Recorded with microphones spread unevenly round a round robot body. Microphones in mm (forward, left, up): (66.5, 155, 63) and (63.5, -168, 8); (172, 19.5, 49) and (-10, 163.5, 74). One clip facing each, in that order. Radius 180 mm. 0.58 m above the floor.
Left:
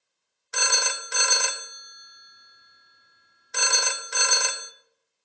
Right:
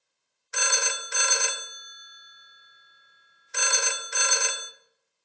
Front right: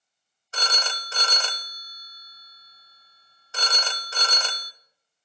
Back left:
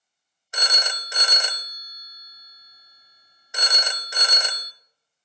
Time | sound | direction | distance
0.5 | a phone ringing | 60° left | 0.6 m